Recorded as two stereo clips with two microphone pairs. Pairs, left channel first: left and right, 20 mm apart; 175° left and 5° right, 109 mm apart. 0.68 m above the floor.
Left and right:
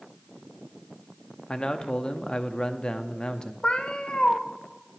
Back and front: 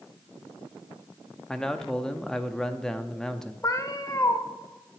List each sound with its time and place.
1.5 s a man speaking: 85° left, 0.6 m
3.6 s a cat meowing: 115° left, 0.8 m